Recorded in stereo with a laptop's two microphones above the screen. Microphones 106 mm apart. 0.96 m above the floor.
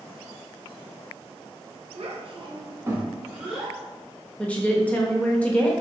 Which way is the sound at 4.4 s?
15° left (ahead or behind).